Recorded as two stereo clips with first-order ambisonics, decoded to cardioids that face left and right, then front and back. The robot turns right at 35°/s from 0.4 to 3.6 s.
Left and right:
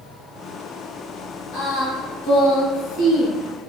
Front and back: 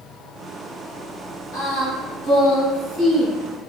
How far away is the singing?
About 1.8 m.